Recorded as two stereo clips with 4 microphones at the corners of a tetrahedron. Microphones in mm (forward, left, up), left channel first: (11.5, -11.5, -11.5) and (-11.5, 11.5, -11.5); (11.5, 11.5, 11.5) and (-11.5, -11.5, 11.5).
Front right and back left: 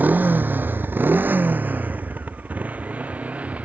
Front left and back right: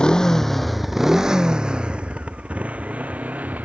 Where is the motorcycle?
110° left; by 3.6 s straight behind.